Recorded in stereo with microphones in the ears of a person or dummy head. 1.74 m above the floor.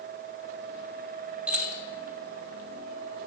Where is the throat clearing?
I don't hear throat clearing.